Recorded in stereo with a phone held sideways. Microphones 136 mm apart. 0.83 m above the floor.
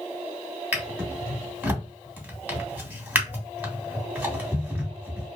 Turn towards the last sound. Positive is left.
turn(degrees=-10)  # may be behind; listen again after turning